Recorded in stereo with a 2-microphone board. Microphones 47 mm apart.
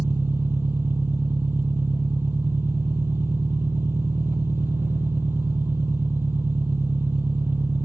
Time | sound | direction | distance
0.0 | an engine running | 55° right (ahead or behind) | ?